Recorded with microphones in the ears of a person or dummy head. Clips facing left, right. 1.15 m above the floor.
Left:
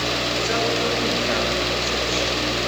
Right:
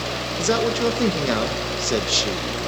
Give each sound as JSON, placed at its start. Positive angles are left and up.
{"t": 0.4, "sound": "a man speaking", "side_deg": -50, "distance_m": 1.4}